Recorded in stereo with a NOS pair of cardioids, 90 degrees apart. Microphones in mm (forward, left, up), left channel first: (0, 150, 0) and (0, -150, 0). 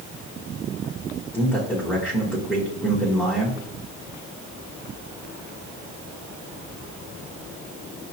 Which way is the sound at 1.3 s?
5° left.